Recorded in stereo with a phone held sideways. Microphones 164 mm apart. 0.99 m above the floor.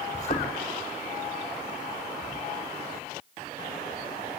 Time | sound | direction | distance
0.1 | a thud | 45° left (ahead or behind) | 4.5 m